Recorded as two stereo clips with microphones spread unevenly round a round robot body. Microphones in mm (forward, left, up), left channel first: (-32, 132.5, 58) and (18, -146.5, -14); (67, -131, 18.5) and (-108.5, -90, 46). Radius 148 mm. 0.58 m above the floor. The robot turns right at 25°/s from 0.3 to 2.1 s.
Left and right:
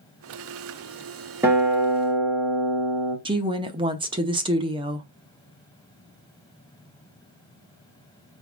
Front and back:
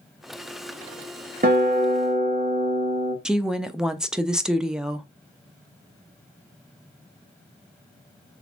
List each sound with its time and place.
1.4 s a guitar: 150° right, 1.6 m; by 3.1 s 135° right, 1.6 m
3.2 s a woman speaking: 95° right, 0.6 m